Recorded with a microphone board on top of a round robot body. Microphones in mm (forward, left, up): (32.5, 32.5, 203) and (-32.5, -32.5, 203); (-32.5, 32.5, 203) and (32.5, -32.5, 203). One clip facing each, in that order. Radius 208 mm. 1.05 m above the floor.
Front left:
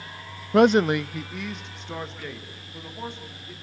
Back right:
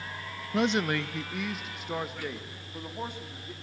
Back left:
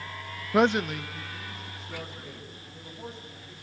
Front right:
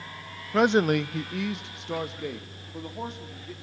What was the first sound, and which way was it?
A man speaking, 60° left.